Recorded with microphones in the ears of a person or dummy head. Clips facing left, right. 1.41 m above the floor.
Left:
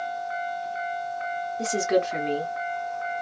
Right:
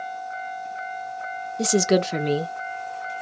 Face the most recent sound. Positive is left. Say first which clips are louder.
# right 4 dB
turn(degrees=-55)  # may be behind; listen again after turning